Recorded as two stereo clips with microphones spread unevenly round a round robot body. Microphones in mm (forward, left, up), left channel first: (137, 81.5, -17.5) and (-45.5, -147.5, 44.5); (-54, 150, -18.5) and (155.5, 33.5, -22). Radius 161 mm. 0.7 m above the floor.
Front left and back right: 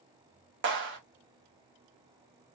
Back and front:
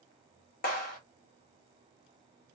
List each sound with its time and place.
0.6 s a clap: 175° right, 1.0 m